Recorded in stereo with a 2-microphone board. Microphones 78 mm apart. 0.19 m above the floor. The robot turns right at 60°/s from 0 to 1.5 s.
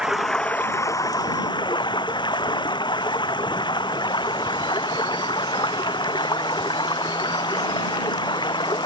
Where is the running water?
10° right; by 8.9 s 80° left.